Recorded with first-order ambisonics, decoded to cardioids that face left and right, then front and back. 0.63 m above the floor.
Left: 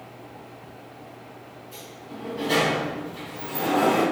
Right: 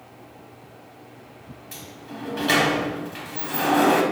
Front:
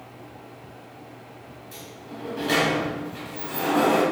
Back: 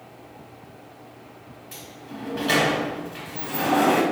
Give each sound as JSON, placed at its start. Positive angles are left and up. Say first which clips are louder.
{"t": 1.7, "sound": "a sliding door", "louder": "right 3 dB, back 1 dB", "azimuth_deg": -110, "distance_m": 0.9}